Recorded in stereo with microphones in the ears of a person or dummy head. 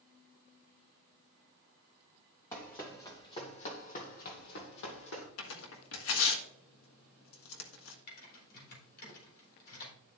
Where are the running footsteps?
15° left (ahead or behind), 3.5 m; by 5.3 s 60° left (ahead or behind), 2.5 m.